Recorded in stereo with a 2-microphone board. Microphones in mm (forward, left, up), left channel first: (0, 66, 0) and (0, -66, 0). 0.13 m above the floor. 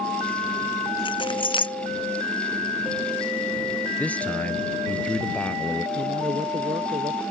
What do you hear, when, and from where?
1.1 s keys jangling: 35° left (ahead or behind)
4.0 s a man speaking: 10° left (ahead or behind)
6.0 s a man speaking: 40° right (ahead or behind)